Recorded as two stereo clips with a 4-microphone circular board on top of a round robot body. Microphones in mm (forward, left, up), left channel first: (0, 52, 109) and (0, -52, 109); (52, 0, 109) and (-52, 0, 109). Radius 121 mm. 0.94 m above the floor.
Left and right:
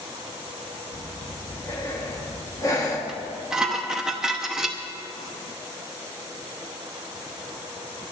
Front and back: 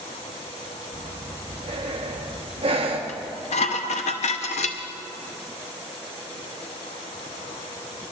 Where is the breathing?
150° left, 1.1 m.